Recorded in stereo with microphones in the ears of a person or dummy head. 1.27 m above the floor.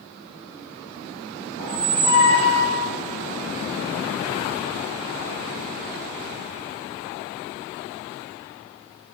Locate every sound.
1.6 s a squeak: 60° left (ahead or behind), 1.6 m